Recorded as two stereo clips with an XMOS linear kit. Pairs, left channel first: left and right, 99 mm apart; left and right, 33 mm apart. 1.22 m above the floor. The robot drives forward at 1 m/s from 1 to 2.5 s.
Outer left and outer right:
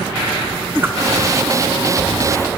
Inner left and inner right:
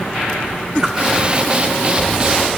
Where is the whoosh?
25° right (ahead or behind), 2 m.